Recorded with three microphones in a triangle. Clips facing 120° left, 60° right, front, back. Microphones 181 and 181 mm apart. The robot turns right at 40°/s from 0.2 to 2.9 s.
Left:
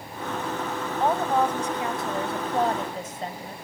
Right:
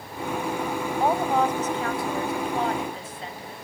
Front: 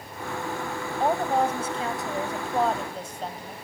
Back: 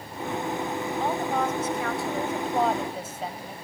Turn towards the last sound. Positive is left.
turn(degrees=95)